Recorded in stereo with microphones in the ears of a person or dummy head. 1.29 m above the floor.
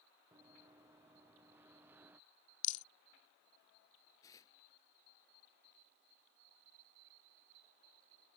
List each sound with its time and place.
0.3 s running footsteps: 20° right (ahead or behind); by 2.2 s 15° right (ahead or behind)
2.6 s a rattle: 40° left (ahead or behind)
4.2 s tearing paper: 20° left (ahead or behind)